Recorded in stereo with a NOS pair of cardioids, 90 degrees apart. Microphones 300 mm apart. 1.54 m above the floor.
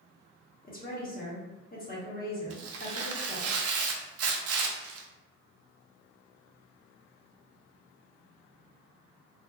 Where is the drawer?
No drawer in this recording.